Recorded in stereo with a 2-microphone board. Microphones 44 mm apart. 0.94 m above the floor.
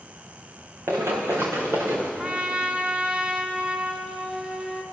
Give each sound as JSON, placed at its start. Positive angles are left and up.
{"t": 0.9, "sound": "running footsteps", "side_deg": -75, "distance_m": 4.0}
{"t": 2.2, "sound": "a trumpet", "side_deg": -25, "distance_m": 1.7}